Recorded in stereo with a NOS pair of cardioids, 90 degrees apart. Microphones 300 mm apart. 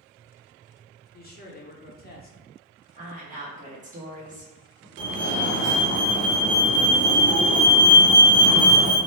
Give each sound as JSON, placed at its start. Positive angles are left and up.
{"t": 1.1, "sound": "a man speaking", "azimuth_deg": 30, "distance_m": 0.7}
{"t": 3.0, "sound": "a woman speaking", "azimuth_deg": -25, "distance_m": 0.9}
{"t": 5.0, "sound": "a fire alarm", "azimuth_deg": -60, "distance_m": 0.9}